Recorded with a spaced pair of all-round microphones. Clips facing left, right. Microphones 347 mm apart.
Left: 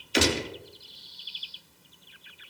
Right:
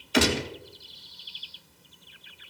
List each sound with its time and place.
0.1 s a gunshot: 65° right (ahead or behind), 2 m